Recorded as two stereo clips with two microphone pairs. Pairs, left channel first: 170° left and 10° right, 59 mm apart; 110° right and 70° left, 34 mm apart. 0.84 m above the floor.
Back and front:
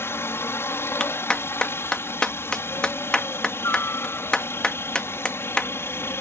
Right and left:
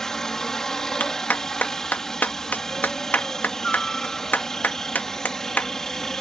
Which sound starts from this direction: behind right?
A clap, at 1.0 s.